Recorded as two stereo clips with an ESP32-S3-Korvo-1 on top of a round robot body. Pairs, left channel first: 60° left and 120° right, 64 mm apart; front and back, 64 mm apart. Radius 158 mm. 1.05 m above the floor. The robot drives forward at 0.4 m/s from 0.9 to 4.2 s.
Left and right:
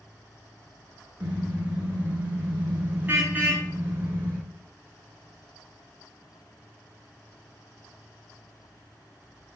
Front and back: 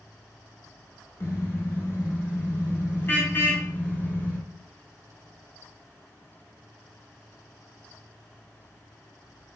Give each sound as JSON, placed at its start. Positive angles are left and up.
{"t": 1.2, "sound": "a car horn", "azimuth_deg": -50, "distance_m": 6.5}